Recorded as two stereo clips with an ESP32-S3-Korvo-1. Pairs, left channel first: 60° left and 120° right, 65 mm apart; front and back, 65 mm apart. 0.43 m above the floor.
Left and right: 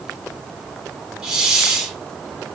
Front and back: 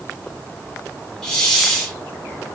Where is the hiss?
70° right, 0.8 m.